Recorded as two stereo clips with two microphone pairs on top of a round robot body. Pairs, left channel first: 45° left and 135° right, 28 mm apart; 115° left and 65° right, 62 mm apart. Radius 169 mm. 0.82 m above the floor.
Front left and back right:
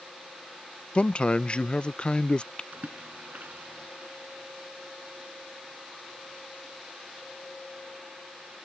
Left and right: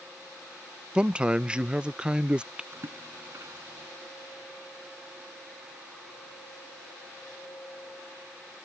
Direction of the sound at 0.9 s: 10° left.